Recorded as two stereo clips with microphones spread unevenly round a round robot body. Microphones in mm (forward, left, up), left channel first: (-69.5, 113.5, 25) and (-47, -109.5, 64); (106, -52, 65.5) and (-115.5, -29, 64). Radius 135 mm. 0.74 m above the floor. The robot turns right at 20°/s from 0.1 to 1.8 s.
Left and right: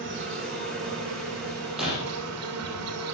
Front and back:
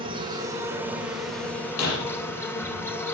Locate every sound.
0.0 s an insect: 120° right, 2.5 m; by 3.1 s 85° right, 2.5 m
1.8 s breaking glass: straight ahead, 5 m; by 2.0 s 5° left, 5 m